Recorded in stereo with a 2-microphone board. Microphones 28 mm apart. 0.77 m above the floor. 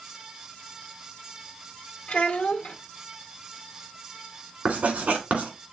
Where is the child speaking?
55° left (ahead or behind), 1.2 m.